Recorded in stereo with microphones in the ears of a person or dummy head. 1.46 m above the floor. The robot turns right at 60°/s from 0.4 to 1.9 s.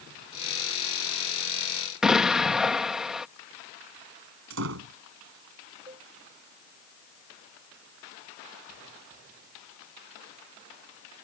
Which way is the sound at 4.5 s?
70° right (ahead or behind).